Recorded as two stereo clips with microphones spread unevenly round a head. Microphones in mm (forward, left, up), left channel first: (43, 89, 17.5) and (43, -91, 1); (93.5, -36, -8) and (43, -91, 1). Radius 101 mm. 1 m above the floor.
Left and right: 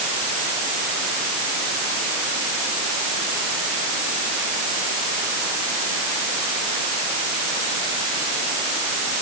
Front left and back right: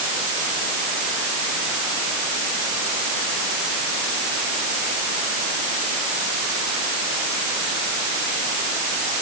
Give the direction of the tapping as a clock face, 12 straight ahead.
No tapping in this recording.